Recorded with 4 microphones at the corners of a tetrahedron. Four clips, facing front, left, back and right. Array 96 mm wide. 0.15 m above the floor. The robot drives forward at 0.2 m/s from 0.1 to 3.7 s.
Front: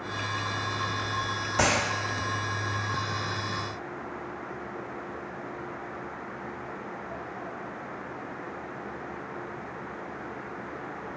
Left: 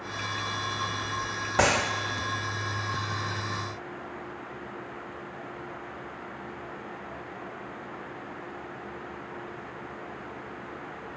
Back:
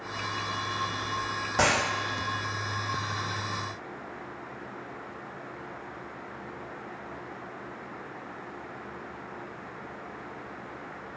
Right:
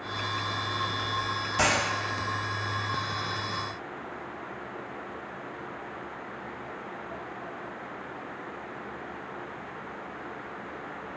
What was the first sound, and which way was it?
A dropped coin, 105° left.